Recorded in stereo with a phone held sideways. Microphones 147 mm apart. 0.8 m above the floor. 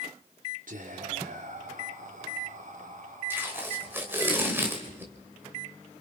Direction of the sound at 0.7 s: 65° right (ahead or behind).